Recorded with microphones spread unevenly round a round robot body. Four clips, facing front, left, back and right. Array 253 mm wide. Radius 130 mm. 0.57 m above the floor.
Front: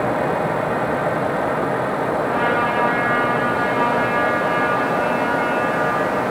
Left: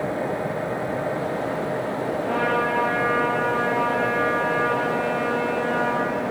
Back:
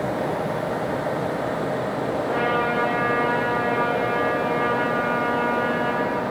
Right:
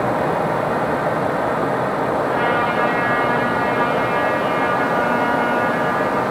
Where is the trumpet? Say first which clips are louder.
Right 4 dB, front 1 dB; 130° left, 8.5 m.